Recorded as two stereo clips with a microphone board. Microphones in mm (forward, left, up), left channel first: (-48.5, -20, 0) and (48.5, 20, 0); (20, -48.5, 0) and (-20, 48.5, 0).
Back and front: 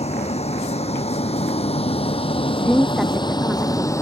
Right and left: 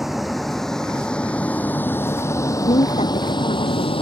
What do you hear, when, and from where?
0.0 s a vehicle: 160° right; by 4.0 s 95° right
2.6 s a woman speaking: 70° right